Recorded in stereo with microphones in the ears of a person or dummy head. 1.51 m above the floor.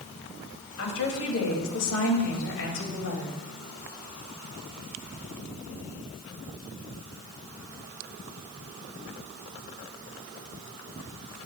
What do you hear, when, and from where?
0.8 s a woman speaking: 75° left (ahead or behind), 3 m; by 3.4 s 70° left (ahead or behind), 3 m